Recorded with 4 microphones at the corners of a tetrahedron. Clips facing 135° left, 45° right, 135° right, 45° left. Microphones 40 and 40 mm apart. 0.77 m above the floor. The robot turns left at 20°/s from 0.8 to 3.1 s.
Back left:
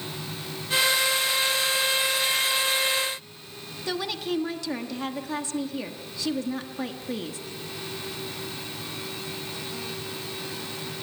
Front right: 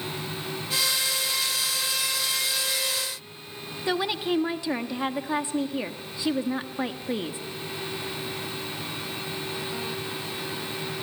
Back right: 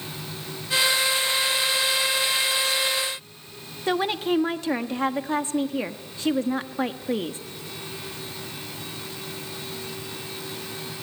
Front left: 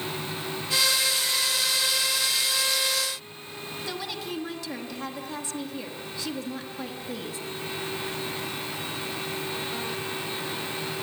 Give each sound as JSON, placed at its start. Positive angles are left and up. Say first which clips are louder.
{"t": 3.9, "sound": "a woman speaking", "louder": "front right 3 dB, back right 12 dB", "azimuth_deg": -105, "distance_m": 1.2}